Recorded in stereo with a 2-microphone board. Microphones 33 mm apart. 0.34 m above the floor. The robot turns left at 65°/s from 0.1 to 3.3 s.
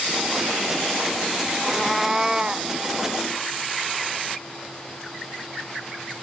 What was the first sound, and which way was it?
A cat meowing, 15° left.